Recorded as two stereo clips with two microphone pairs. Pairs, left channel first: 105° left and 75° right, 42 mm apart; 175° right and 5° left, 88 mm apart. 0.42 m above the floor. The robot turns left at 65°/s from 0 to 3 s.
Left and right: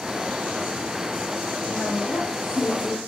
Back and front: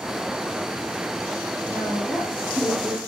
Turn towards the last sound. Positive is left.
turn(degrees=55)